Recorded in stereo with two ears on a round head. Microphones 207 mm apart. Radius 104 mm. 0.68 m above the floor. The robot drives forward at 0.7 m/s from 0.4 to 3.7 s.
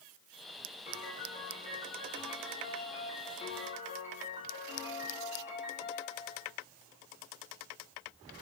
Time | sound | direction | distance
0.9 | a piano | 35° left (ahead or behind) | 9.5 m